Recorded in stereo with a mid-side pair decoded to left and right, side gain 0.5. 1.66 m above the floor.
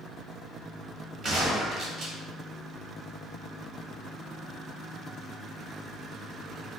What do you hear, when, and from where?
1.2 s a gunshot: 50° right, 1.3 m